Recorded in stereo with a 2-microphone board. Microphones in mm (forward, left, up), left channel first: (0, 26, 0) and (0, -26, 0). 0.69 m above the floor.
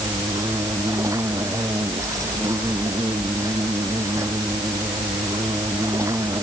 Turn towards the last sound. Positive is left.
turn(degrees=-90)